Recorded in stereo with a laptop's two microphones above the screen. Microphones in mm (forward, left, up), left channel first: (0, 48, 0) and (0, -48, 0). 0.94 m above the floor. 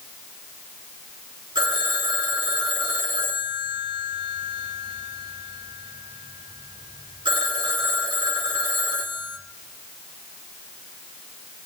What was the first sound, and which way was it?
A phone ringing, 65° right (ahead or behind).